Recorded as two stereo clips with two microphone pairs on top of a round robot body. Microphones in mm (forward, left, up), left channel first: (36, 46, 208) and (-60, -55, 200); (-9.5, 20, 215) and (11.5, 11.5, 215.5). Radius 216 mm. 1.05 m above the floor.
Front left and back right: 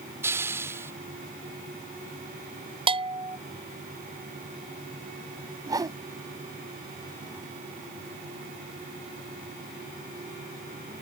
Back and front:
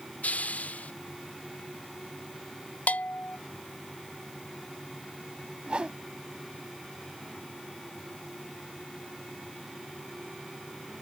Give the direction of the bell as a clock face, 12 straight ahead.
6 o'clock.